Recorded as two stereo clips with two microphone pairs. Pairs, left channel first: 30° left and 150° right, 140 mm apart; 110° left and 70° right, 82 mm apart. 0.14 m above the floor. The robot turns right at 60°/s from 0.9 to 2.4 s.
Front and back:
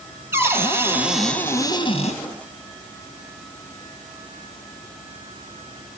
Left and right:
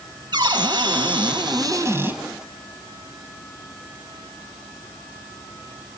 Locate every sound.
0.3 s a cupboard door: 80° right, 3.5 m; by 2.2 s straight ahead, 3.5 m